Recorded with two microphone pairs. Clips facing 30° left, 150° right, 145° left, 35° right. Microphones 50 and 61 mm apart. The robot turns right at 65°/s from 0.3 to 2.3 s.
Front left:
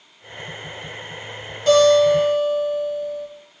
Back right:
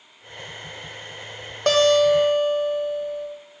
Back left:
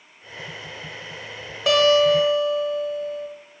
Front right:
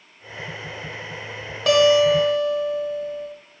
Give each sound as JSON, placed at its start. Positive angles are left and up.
{"t": 1.7, "sound": "a guitar", "azimuth_deg": -125, "distance_m": 1.2}